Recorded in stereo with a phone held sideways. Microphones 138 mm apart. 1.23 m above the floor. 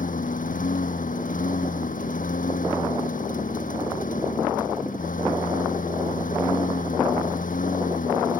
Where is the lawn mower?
75° left (ahead or behind).